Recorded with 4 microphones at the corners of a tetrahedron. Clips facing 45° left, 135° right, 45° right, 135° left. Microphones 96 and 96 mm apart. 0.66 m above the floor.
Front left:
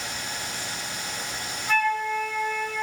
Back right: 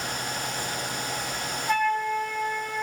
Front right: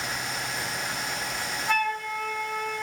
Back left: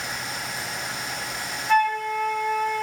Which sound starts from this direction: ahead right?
A flute, at 1.7 s.